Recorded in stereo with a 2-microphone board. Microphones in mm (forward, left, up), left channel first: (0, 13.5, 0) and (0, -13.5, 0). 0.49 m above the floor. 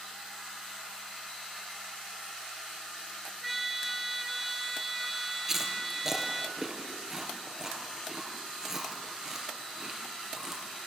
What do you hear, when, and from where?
3.4 s a trumpet: centre (ahead or behind), 1.3 m
5.5 s chewing: 20° right (ahead or behind), 3 m